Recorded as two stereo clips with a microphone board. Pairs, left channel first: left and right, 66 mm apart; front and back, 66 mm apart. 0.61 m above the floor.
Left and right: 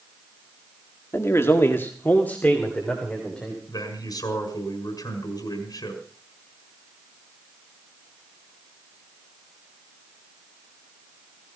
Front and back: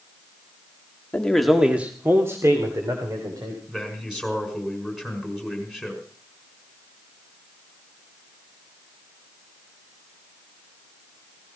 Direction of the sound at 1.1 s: 65° left.